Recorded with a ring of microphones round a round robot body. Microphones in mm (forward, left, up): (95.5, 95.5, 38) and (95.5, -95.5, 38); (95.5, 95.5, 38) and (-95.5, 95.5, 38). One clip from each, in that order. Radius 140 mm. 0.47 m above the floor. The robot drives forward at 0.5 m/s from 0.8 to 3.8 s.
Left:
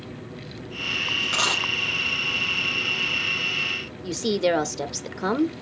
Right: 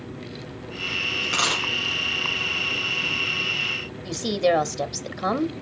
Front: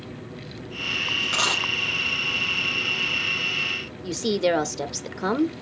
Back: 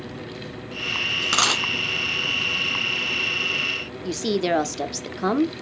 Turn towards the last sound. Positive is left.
turn(degrees=105)